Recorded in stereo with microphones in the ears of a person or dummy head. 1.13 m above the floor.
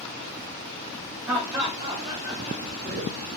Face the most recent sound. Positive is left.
turn(degrees=-50)  # may be behind; listen again after turning